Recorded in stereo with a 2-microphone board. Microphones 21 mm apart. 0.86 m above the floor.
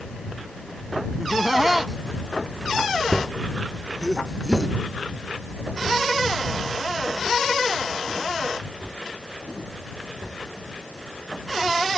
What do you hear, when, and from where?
1.2 s laughter: 10° right (ahead or behind)